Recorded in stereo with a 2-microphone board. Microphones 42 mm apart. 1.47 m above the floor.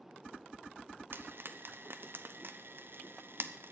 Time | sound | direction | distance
1.1 | frying | 60° right (ahead or behind) | 0.6 m